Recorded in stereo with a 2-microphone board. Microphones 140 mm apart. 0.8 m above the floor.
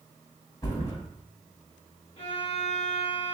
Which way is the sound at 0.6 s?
25° left (ahead or behind).